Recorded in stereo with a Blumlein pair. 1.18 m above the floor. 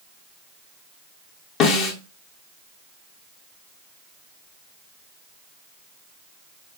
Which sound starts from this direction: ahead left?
A snare drum, at 1.6 s.